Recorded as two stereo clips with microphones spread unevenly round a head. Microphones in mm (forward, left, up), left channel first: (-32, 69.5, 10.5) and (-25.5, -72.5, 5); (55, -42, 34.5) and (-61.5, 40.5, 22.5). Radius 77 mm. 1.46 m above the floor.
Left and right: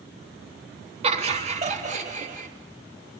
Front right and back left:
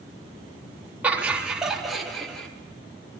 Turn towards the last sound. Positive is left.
turn(degrees=-120)